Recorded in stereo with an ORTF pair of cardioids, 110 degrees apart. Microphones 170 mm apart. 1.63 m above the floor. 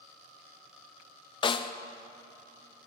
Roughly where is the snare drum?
Ahead left.